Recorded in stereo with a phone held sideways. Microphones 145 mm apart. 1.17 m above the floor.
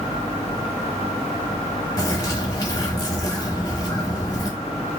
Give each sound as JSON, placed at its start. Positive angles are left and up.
{"t": 2.0, "sound": "a bird", "side_deg": 30, "distance_m": 1.1}